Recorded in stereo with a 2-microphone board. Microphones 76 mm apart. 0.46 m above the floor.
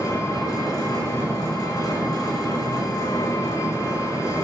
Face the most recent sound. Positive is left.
turn(degrees=45)  # may be behind; listen again after turning